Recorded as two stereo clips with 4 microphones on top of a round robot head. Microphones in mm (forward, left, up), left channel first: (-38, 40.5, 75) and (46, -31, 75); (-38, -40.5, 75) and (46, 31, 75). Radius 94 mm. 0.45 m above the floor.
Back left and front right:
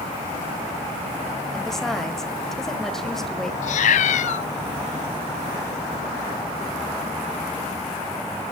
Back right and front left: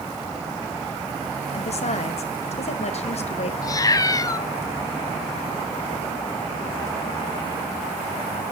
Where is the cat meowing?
160° left, 0.7 m.